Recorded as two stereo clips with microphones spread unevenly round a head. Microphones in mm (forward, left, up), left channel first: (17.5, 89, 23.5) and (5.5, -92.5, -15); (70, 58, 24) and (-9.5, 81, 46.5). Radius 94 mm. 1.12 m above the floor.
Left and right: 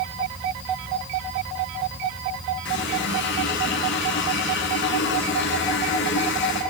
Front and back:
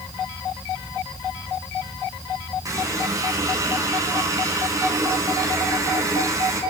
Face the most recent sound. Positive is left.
turn(degrees=115)